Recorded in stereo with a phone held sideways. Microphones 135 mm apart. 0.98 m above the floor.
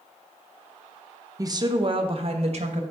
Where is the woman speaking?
25° right (ahead or behind), 0.7 m; by 2.8 s 55° right (ahead or behind), 1.3 m.